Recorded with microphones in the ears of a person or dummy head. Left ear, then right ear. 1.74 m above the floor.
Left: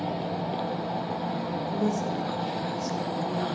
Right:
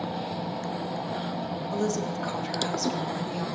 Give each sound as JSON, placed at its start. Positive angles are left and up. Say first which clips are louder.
{"t": 1.7, "sound": "a woman speaking", "louder": "right 1 dB", "side_deg": -65, "distance_m": 2.5}